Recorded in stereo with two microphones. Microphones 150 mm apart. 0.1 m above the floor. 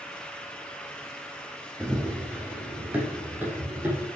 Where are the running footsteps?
5° right (ahead or behind), 1.9 m; by 4.0 s 10° right (ahead or behind), 5 m.